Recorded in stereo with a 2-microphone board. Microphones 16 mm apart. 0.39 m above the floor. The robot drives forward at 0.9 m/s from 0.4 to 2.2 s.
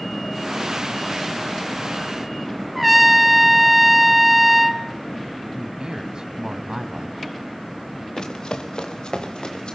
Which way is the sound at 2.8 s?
15° right (ahead or behind).